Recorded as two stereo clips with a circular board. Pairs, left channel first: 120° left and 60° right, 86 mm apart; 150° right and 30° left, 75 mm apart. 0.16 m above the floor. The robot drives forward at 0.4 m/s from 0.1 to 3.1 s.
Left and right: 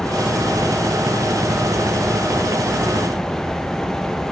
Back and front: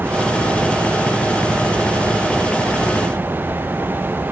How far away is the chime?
No chime in this recording.